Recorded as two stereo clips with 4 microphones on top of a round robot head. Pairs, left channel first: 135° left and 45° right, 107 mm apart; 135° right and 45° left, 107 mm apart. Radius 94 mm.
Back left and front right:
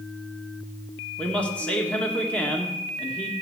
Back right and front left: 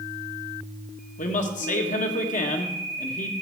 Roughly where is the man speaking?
Behind right.